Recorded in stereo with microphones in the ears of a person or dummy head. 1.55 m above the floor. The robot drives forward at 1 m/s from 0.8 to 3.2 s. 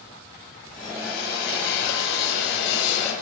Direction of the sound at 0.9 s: 60° left (ahead or behind).